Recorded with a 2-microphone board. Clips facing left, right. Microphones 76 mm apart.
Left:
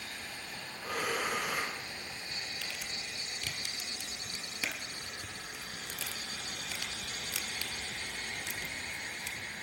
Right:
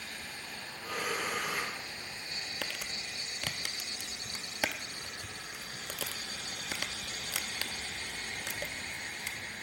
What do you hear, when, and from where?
0.8 s breathing: 55° left (ahead or behind), 3 m
2.6 s crumpling: 75° right (ahead or behind), 0.5 m